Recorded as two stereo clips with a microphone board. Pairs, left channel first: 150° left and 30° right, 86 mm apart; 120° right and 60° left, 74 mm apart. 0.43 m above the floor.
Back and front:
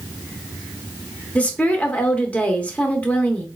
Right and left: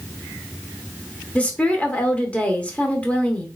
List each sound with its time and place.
1.4 s a woman speaking: 160° right, 0.8 m